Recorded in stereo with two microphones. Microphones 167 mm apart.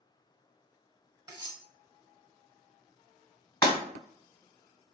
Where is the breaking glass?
30° left (ahead or behind), 1.3 m.